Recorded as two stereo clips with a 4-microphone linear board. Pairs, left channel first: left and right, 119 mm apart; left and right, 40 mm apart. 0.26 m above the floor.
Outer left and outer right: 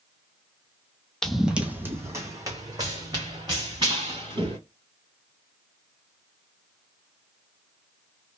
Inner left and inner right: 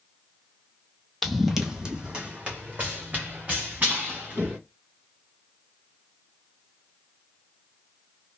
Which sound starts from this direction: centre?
Running footsteps, at 1.2 s.